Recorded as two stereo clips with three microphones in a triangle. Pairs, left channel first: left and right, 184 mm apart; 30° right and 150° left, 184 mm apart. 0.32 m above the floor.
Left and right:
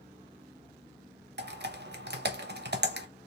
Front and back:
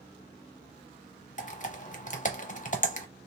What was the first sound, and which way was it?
Typing on a keyboard, 75° right.